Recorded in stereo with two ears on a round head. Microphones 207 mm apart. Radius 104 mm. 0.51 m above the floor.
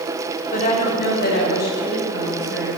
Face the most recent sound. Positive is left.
turn(degrees=45)  # may be behind; listen again after turning